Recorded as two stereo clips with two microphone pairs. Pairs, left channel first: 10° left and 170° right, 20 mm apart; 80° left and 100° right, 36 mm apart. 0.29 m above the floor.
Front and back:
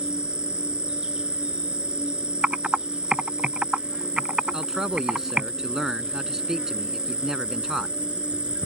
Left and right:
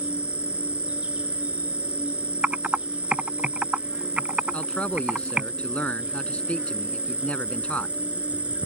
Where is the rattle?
I don't hear a rattle.